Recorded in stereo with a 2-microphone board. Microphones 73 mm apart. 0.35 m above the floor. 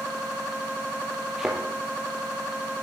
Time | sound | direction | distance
1.4 | a thud | 5° right (ahead or behind) | 4 m